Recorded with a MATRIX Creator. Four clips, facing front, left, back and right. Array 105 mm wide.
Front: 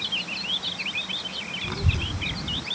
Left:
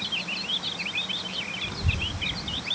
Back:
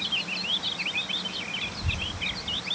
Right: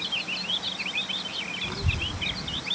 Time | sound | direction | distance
1.6 | a child speaking | 20° right | ?